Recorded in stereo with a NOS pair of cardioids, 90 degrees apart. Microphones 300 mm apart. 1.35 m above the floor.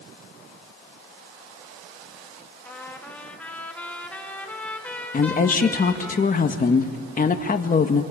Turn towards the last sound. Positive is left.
turn(degrees=25)